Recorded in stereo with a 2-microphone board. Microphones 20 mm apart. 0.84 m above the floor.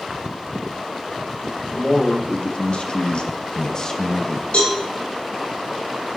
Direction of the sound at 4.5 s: 85° left.